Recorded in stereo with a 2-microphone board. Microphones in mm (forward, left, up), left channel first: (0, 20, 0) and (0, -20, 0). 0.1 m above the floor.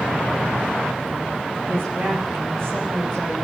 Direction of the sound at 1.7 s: 65° right (ahead or behind).